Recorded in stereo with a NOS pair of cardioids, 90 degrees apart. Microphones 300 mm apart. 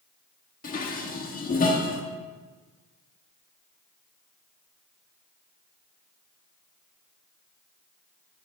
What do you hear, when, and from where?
0.6 s dishes clattering: 30° left, 1.2 m